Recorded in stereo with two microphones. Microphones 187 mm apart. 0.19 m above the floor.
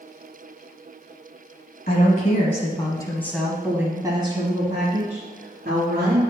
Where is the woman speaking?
50° left (ahead or behind), 1.5 m; by 6.2 s 55° right (ahead or behind), 2.5 m.